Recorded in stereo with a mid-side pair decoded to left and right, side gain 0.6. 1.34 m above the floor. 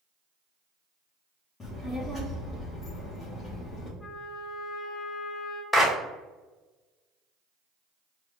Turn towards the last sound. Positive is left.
turn(degrees=15)